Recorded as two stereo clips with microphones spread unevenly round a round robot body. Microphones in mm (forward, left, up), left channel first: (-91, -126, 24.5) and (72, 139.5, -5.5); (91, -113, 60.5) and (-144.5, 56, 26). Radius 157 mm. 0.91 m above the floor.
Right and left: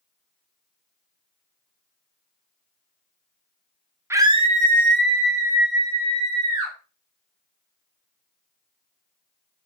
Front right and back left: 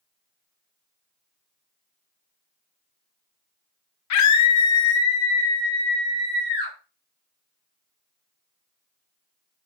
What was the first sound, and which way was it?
A scream, 20° right.